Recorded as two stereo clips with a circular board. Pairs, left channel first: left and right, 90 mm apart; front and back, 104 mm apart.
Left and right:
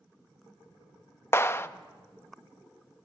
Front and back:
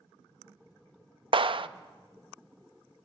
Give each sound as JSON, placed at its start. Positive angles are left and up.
{"t": 1.3, "sound": "a clap", "azimuth_deg": 150, "distance_m": 0.6}